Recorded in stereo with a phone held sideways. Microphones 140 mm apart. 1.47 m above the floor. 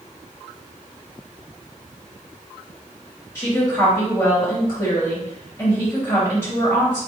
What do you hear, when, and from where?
3.4 s a woman speaking: 15° left (ahead or behind), 2.5 m